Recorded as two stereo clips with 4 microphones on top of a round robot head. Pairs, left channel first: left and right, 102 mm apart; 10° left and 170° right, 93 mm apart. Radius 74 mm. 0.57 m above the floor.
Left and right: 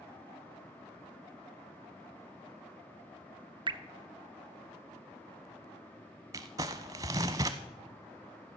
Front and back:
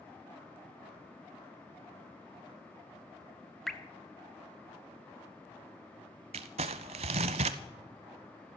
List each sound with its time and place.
3.7 s dripping: 75° right, 0.8 m
6.3 s crumpling: 155° right, 0.6 m